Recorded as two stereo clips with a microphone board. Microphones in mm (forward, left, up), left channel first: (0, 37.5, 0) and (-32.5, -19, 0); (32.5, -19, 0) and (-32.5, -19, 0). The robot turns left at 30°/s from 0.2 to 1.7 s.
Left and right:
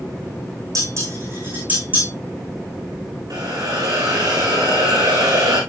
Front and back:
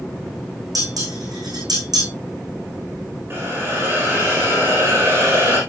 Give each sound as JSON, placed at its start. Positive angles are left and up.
{"t": 0.8, "sound": "dishes clattering", "azimuth_deg": -160, "distance_m": 5.5}
{"t": 3.3, "sound": "a hiss", "azimuth_deg": -125, "distance_m": 4.0}